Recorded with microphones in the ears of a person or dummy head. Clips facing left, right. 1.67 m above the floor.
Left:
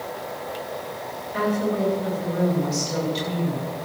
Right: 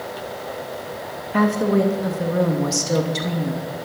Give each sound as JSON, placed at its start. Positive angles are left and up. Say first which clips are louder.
{"t": 1.3, "sound": "a woman speaking", "louder": "right 5 dB", "side_deg": -65, "distance_m": 2.5}